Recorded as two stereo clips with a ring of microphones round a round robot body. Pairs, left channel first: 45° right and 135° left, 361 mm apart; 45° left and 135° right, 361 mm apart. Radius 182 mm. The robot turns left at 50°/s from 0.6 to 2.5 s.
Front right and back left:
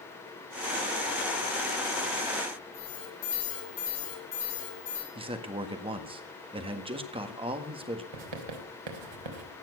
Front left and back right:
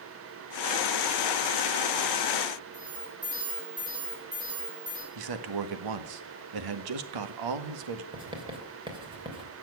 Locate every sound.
2.7 s an alarm: 55° right, 9 m
5.2 s a man speaking: 150° right, 1.7 m
8.1 s writing: 150° left, 3 m